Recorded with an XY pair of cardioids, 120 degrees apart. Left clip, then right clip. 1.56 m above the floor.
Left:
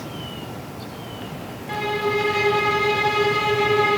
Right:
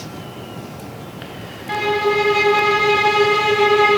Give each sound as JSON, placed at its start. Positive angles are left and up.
{"t": 1.7, "sound": "a violin", "azimuth_deg": -35, "distance_m": 1.5}